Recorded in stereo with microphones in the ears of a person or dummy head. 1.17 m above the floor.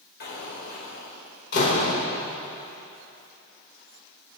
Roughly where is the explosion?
Left.